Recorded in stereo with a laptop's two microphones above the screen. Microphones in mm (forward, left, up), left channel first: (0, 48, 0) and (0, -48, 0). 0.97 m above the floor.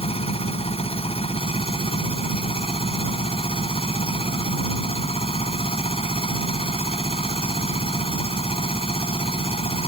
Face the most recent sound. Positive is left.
turn(degrees=75)  # may be behind; listen again after turning